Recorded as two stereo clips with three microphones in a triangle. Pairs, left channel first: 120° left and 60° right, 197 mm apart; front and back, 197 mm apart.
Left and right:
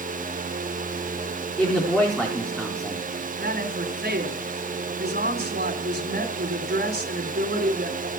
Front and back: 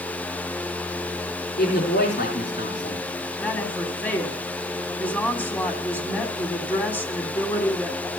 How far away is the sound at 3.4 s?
About 2.5 m.